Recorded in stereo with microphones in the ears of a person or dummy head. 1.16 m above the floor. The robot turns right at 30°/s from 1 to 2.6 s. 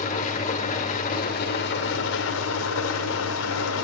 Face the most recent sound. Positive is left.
turn(degrees=95)